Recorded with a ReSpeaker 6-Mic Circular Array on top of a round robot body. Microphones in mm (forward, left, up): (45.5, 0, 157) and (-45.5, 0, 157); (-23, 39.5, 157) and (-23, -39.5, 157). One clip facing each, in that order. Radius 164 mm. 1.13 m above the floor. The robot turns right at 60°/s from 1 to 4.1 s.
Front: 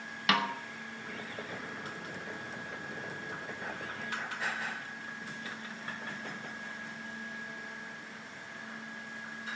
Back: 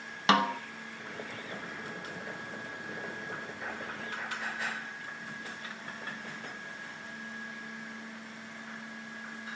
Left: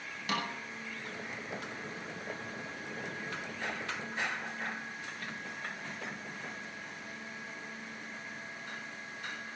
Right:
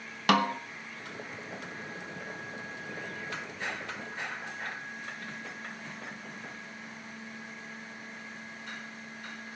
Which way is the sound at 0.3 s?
120° right.